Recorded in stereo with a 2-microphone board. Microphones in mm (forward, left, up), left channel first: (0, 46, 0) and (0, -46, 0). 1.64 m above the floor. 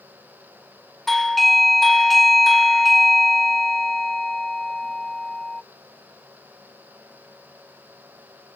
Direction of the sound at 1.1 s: Centre (ahead or behind).